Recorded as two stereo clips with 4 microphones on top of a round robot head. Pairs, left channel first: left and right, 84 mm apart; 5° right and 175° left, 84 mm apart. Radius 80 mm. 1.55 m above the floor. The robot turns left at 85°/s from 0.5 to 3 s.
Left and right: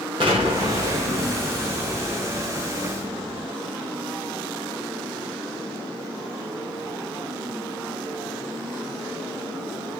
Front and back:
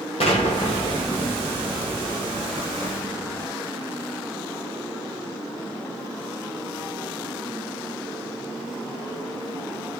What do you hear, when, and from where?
0.2 s an explosion: 40° right, 1.2 m; by 3.5 s 110° left, 1.2 m